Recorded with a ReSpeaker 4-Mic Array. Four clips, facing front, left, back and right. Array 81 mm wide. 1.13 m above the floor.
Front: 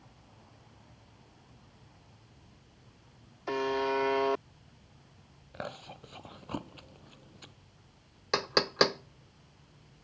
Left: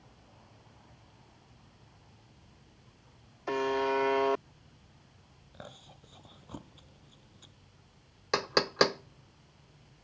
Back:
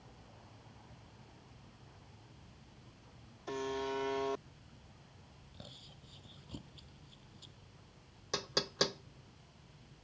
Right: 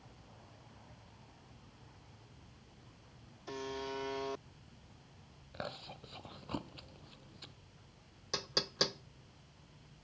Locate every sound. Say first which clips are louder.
3.5 s a buzzer: left 12 dB, front 8 dB; 60° left
5.5 s chewing: right 5 dB, front 17 dB; 20° right
8.3 s knocking: left 12 dB, front 9 dB; 55° left